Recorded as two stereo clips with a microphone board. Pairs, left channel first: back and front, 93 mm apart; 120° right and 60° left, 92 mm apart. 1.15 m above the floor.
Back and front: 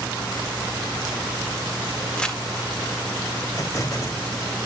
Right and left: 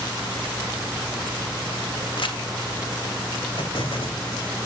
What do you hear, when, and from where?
2.2 s crumpling: 100° right, 1.7 m
3.6 s an explosion: 130° right, 2.5 m